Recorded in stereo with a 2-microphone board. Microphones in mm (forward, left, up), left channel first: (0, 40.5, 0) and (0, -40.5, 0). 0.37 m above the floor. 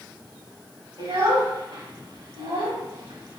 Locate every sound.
1.0 s a child speaking: 60° right (ahead or behind), 1.9 m